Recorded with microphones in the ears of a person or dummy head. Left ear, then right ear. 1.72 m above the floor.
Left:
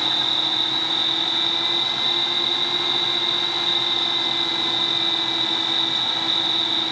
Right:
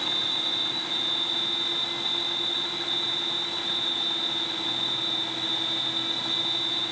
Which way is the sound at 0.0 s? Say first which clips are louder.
Left 6 dB; 55° left (ahead or behind).